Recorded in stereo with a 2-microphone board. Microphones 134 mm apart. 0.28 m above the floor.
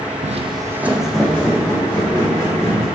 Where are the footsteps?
65° right (ahead or behind), 0.5 m; by 2.9 s 20° left (ahead or behind), 2.5 m.